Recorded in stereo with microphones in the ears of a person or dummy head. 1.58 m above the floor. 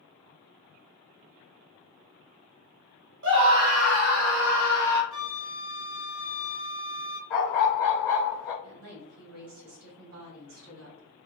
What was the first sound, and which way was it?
A scream, 70° right (ahead or behind).